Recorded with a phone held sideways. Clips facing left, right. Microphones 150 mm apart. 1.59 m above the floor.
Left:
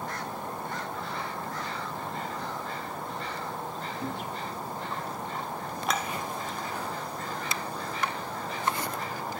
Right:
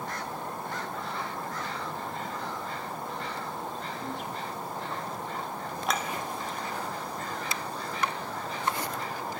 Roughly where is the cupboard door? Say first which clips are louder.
Left 2 dB; centre.